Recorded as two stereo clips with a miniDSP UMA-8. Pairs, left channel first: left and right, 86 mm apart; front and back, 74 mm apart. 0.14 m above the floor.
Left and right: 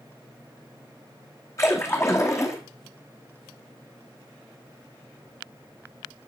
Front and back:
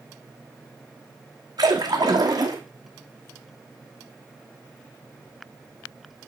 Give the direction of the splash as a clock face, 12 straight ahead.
7 o'clock.